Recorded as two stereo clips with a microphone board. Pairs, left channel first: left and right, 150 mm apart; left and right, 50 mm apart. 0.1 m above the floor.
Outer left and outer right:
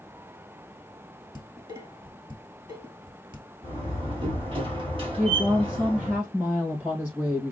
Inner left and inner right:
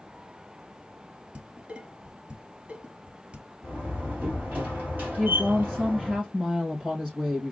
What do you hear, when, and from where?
1.4 s dishes clattering: 30° right (ahead or behind), 1.4 m
3.6 s a door slam: 35° right (ahead or behind), 2 m
5.2 s a woman speaking: 10° right (ahead or behind), 3 m